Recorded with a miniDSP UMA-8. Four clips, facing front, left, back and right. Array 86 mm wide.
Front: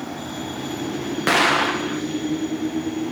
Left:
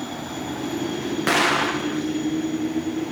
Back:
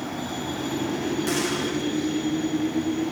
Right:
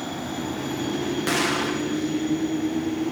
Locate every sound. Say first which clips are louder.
1.3 s an explosion: left 6 dB, front 7 dB; 30° left